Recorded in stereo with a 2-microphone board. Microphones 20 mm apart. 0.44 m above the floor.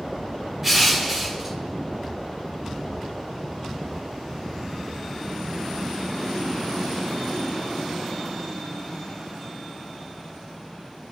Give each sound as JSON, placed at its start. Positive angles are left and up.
{"t": 0.6, "sound": "crushing", "side_deg": -25, "distance_m": 3.0}